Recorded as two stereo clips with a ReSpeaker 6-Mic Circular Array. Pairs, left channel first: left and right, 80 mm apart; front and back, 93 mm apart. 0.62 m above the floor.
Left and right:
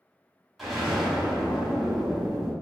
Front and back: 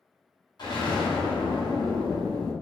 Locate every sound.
0.6 s an explosion: 5° right, 0.9 m